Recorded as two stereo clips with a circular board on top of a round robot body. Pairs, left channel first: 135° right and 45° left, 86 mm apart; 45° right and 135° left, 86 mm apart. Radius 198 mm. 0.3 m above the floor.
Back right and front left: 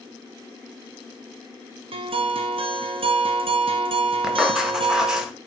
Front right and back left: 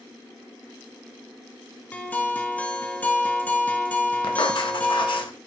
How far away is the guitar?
About 0.6 m.